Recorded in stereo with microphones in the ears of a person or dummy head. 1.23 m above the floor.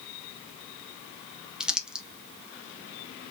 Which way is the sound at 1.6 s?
Centre (ahead or behind).